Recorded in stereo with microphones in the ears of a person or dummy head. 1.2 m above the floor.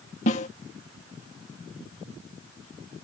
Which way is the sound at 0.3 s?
40° left (ahead or behind).